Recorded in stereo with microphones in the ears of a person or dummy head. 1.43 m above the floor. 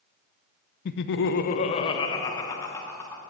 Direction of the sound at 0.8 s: 60° left (ahead or behind).